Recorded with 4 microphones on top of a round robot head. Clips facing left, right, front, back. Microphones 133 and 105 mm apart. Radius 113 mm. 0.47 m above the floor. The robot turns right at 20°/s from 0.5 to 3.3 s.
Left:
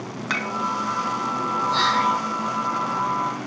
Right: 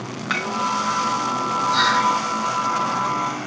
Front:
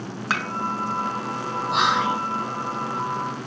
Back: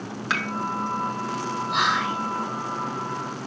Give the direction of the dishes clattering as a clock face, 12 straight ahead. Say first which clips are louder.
Right 2 dB, front 1 dB; 10 o'clock.